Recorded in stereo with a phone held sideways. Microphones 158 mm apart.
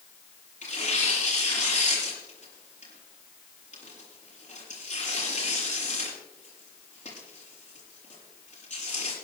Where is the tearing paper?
55° left (ahead or behind), 7 m.